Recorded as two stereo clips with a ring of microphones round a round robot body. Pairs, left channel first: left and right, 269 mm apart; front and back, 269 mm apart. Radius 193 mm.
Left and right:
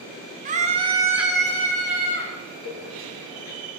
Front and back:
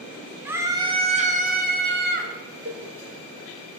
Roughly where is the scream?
Right.